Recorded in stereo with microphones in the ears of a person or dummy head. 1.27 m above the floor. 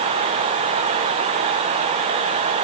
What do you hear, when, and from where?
Only background noise.